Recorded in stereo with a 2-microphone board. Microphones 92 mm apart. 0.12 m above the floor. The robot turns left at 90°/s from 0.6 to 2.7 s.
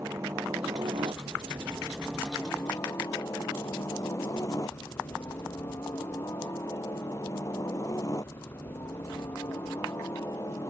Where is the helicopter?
35° right; by 10.7 s 135° left.